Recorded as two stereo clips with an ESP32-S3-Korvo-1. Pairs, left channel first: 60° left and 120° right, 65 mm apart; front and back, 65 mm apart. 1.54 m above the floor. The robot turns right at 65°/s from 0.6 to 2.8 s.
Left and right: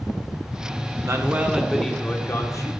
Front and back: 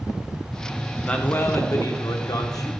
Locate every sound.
1.1 s a man speaking: 75° right, 1.5 m; by 2.7 s 30° left, 1.5 m